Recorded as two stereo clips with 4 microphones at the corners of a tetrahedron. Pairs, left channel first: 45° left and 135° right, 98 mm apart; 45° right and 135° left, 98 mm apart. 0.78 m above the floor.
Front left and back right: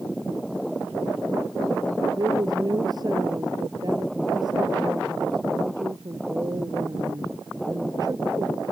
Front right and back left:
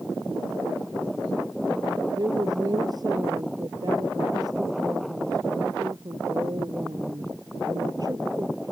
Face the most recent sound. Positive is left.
turn(degrees=180)